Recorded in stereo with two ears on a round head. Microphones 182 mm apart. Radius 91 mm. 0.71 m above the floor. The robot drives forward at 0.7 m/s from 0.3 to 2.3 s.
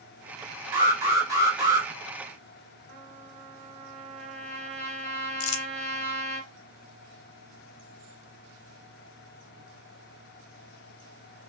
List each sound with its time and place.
0.7 s an alarm: 15° right (ahead or behind), 3 m; by 1.9 s 20° right (ahead or behind), 2.5 m
2.9 s a trumpet: 35° right (ahead or behind), 2.5 m
5.4 s crumpling: 70° left (ahead or behind), 0.7 m